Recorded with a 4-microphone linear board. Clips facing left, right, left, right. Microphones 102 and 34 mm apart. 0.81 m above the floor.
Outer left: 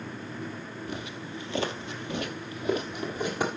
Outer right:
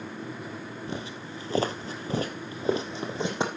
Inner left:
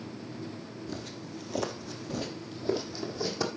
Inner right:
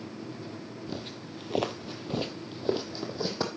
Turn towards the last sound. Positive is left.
turn(degrees=-20)  # may be behind; listen again after turning